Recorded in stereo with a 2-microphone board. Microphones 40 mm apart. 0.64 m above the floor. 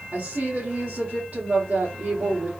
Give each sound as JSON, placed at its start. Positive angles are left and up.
{"t": 0.1, "sound": "a woman speaking", "side_deg": -30, "distance_m": 2.0}